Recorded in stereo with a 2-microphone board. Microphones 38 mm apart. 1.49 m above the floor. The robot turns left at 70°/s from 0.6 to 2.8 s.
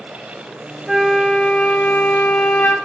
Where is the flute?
170° right, 1.5 m; by 2.8 s 60° left, 1.5 m.